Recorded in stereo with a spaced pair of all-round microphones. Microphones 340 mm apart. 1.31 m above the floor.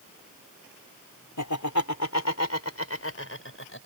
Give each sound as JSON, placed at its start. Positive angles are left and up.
{"t": 1.4, "sound": "laughter", "side_deg": 60}